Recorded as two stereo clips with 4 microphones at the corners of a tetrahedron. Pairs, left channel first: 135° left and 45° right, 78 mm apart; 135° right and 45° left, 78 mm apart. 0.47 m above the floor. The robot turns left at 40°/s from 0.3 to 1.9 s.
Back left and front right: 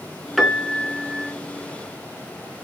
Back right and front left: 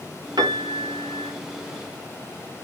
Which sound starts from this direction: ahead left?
A piano, at 0.4 s.